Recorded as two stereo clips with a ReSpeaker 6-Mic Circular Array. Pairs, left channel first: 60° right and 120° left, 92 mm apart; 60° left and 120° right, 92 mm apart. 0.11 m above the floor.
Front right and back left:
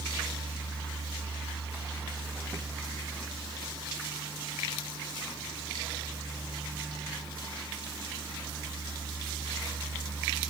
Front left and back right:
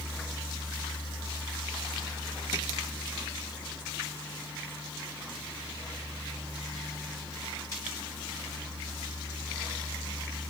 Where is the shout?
No shout in this recording.